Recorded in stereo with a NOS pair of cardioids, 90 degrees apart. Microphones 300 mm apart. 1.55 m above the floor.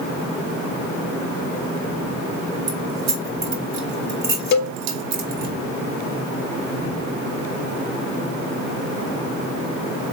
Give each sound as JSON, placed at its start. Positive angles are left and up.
{"t": 2.7, "sound": "keys jangling", "azimuth_deg": -65, "distance_m": 3.0}
{"t": 4.5, "sound": "a cowbell", "azimuth_deg": 70, "distance_m": 0.9}